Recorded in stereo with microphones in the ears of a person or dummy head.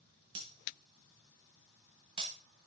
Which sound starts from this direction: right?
Breaking glass, at 0.3 s.